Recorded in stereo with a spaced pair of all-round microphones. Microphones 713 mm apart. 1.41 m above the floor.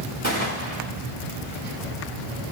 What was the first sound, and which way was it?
A gunshot, 80° right.